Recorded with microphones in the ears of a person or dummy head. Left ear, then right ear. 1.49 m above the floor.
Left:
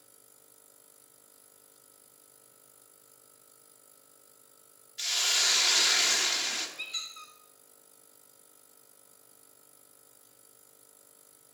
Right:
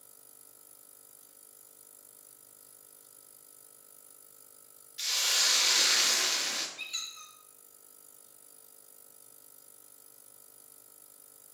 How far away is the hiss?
About 0.6 m.